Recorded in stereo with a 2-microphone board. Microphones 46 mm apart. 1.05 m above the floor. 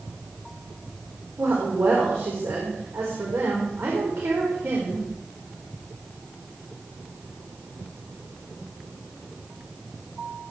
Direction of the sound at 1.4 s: 70° right (ahead or behind).